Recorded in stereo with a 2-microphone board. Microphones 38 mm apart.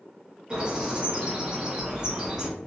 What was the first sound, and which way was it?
A bird, 20° right (ahead or behind).